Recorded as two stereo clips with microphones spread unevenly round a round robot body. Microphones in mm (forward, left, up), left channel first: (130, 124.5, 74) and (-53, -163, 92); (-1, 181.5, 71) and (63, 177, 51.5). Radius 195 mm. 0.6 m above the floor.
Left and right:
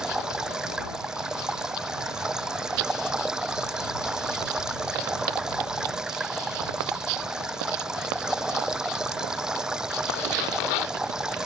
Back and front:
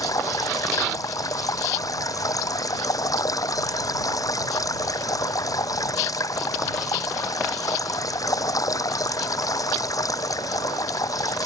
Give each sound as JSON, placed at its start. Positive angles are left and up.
{"t": 0.0, "sound": "running water", "azimuth_deg": 150}